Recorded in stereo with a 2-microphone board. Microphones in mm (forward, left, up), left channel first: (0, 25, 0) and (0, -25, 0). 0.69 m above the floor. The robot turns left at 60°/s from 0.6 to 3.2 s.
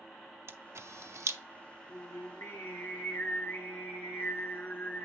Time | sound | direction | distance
0.5 | a camera shutter | 55° right (ahead or behind) | 0.6 m
1.9 | singing | 115° left | 3.5 m